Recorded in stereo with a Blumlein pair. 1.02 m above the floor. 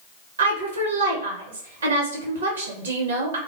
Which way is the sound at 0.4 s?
65° right.